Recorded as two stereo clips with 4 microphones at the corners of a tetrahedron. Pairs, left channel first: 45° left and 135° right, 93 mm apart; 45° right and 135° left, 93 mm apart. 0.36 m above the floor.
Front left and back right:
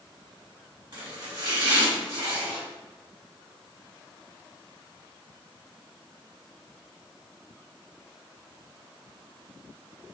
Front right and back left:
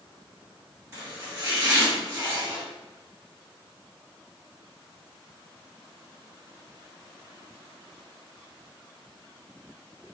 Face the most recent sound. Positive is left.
turn(degrees=-170)